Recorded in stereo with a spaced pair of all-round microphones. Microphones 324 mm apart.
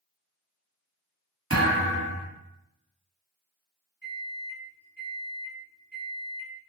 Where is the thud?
45° right (ahead or behind), 1.8 m.